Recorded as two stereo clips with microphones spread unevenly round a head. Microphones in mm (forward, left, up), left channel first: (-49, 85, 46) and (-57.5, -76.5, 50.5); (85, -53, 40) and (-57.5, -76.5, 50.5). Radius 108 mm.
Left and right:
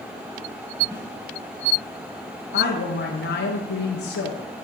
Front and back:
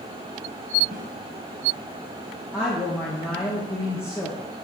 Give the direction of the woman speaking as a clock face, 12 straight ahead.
9 o'clock.